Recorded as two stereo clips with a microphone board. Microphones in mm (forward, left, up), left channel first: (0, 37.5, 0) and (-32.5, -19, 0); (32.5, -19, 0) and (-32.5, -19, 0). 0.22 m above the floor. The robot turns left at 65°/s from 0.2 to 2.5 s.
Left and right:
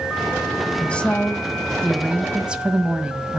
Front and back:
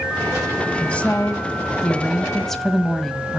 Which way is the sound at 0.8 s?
35° left.